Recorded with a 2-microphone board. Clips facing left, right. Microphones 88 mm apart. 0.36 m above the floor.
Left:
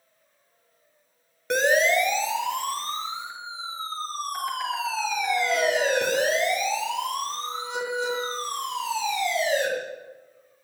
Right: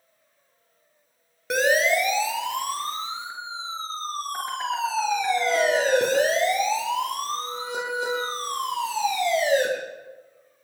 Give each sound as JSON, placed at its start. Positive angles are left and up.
{"t": 1.5, "sound": "a siren", "side_deg": -5, "distance_m": 8.0}